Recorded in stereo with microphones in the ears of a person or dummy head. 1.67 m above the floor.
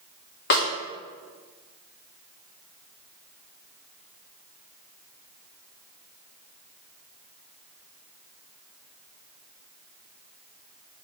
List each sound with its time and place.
0.5 s a snare drum: 65° left (ahead or behind), 1.7 m